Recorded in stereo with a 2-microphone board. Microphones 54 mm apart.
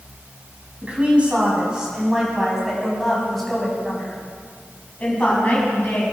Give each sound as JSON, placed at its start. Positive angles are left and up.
{"t": 0.8, "sound": "a woman speaking", "side_deg": -25, "distance_m": 4.5}